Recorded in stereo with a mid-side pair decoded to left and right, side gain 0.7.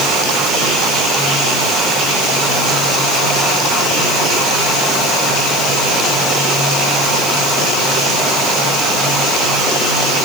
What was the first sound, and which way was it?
Only background noise.